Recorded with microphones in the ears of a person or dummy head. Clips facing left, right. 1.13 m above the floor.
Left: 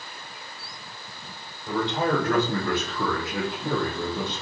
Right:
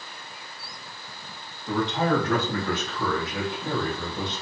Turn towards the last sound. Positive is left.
turn(degrees=45)  # may be behind; listen again after turning